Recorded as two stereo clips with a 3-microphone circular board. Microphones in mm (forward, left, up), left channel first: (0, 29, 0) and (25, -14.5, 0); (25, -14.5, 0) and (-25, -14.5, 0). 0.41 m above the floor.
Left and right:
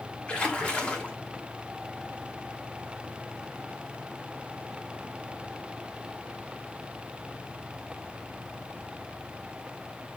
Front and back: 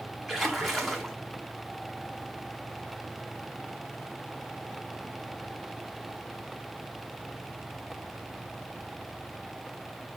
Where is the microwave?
No microwave in this recording.